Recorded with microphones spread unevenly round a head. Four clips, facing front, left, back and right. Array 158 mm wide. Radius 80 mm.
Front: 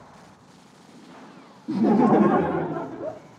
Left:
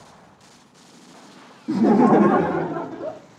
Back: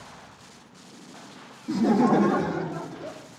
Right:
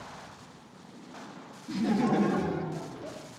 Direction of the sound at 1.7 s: 85° left.